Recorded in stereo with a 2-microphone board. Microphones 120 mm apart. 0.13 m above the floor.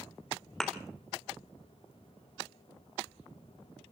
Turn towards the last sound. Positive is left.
turn(degrees=5)  # may be behind; listen again after turning